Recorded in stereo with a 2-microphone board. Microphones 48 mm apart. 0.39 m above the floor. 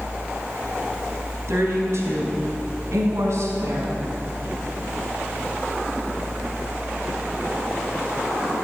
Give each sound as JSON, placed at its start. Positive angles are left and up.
{"t": 1.5, "sound": "a woman speaking", "side_deg": -65, "distance_m": 3.5}